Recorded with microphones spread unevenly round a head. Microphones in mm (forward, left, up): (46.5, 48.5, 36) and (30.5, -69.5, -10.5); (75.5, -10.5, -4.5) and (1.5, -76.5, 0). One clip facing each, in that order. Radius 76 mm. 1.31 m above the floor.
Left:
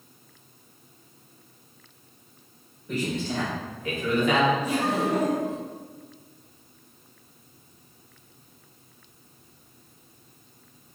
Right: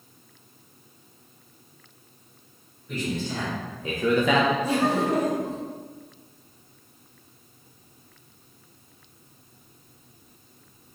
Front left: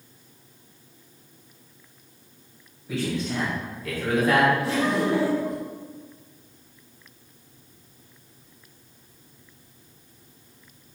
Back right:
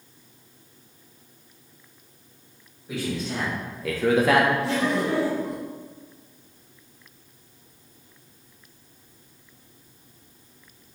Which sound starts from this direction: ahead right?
Laughter, at 4.6 s.